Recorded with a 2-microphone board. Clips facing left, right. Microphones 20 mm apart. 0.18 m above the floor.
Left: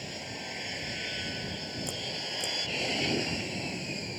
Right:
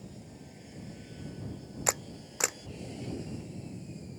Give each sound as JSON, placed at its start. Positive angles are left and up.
{"t": 0.0, "sound": "an aircraft", "side_deg": 65}
{"t": 1.9, "sound": "a camera shutter", "side_deg": -70}